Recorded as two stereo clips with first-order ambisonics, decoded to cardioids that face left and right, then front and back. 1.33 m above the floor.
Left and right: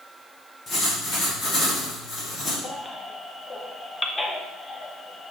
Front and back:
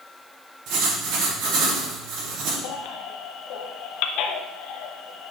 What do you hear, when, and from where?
0.7 s writing: 155° left, 3.5 m
2.6 s a baby crying: 15° left, 0.7 m